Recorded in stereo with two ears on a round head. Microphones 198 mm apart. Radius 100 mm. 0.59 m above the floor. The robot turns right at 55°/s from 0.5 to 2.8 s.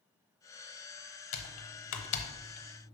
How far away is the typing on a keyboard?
About 0.9 m.